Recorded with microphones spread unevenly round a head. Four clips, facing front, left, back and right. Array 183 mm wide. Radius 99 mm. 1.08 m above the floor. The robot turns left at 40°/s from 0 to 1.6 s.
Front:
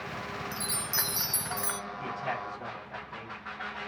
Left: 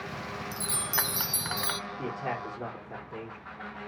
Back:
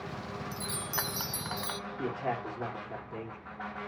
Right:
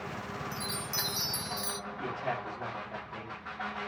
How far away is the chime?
About 0.6 m.